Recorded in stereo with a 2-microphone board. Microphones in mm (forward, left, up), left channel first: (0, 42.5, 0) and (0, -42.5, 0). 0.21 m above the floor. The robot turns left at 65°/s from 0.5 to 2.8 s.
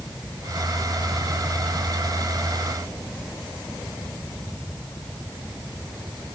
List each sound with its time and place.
Only background noise.